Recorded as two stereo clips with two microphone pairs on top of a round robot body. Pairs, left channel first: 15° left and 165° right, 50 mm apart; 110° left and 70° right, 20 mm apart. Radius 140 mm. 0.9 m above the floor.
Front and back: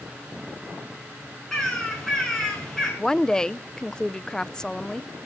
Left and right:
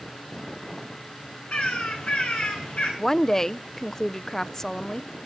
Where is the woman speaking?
60° left, 0.7 m.